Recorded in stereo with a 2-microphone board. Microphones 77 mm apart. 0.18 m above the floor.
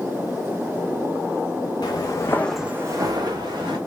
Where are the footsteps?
60° left (ahead or behind), 1.2 m; by 3.8 s 70° right (ahead or behind), 1.8 m.